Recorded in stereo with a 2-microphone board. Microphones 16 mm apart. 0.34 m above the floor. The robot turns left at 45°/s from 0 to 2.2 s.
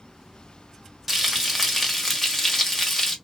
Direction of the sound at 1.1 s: 155° right.